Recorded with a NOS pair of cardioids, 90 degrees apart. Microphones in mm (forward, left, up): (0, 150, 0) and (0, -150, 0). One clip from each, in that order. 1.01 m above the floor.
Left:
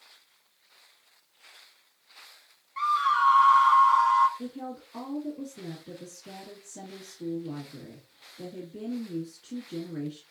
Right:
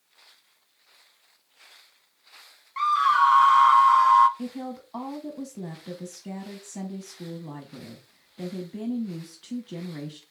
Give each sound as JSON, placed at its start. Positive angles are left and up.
{"t": 2.8, "sound": "a scream", "azimuth_deg": -25, "distance_m": 0.7}
{"t": 4.4, "sound": "a woman speaking", "azimuth_deg": -65, "distance_m": 1.2}